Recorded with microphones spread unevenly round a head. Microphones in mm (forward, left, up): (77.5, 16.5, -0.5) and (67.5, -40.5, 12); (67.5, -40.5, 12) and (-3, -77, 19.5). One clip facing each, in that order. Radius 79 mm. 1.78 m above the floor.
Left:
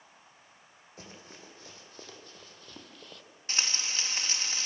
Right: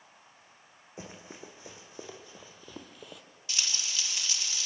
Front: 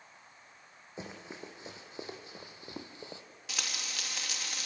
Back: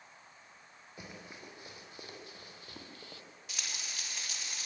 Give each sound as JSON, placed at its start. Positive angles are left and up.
{"t": 1.0, "sound": "running footsteps", "azimuth_deg": -40, "distance_m": 4.0}
{"t": 3.5, "sound": "frying", "azimuth_deg": 30, "distance_m": 2.5}